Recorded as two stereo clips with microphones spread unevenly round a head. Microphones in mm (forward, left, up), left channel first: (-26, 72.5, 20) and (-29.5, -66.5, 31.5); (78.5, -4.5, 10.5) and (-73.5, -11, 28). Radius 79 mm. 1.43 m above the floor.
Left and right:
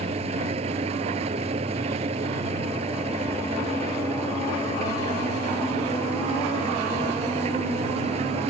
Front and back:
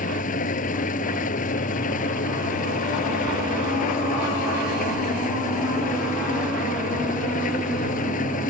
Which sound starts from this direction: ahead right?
An engine running, at 0.0 s.